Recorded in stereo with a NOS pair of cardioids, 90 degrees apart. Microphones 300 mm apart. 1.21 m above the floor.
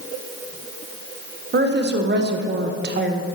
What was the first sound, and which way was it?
A woman speaking, 35° right.